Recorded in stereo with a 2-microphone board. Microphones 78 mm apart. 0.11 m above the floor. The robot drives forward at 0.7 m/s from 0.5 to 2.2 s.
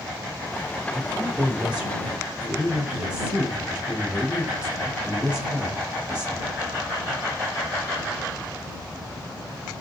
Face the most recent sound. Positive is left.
turn(degrees=-10)  # may be behind; listen again after turning